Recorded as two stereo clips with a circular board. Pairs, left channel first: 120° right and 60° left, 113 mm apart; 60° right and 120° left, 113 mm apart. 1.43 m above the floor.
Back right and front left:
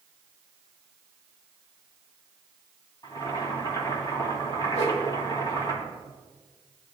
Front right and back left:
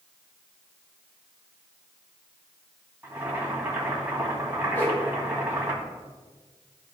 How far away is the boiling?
About 2.5 m.